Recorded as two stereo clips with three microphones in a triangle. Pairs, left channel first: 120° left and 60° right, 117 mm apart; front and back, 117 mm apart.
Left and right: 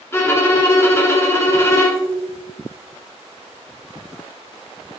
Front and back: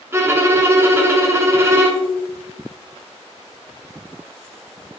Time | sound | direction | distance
0.1 | a violin | 150° left | 0.6 m